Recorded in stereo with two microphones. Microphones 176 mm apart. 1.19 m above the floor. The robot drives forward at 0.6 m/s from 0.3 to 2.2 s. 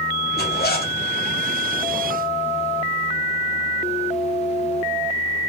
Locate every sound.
0.4 s a zipper: 65° left (ahead or behind), 0.9 m; by 1.0 s 55° left (ahead or behind), 0.9 m